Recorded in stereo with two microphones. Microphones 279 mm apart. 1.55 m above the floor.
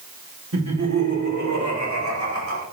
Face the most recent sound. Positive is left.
turn(degrees=-70)  # may be behind; listen again after turning